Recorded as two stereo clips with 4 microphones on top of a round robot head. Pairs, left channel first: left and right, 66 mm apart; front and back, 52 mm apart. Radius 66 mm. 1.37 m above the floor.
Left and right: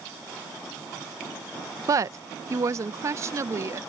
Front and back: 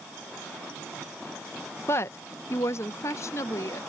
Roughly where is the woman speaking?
Ahead right.